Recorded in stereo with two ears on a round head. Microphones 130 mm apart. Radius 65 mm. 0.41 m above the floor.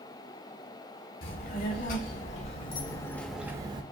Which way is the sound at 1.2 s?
60° left (ahead or behind).